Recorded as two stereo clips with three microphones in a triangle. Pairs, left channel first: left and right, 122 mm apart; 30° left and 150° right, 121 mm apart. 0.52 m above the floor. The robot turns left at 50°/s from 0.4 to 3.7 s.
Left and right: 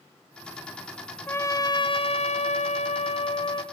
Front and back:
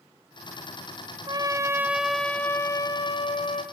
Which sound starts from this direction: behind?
A trumpet, at 1.3 s.